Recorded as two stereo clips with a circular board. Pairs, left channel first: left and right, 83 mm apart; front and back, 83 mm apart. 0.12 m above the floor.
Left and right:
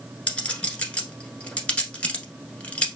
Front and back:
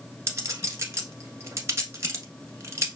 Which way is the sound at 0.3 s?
155° left.